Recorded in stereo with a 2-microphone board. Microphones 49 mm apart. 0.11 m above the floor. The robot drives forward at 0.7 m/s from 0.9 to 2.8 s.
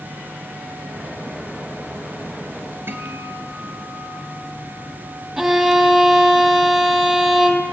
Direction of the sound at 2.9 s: 45° right (ahead or behind).